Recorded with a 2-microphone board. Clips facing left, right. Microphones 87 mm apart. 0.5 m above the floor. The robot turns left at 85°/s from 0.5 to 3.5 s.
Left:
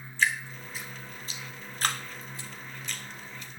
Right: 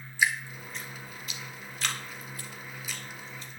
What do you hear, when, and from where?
0.2 s dripping: 10° right (ahead or behind), 1.6 m; by 3.6 s 35° right (ahead or behind), 1.6 m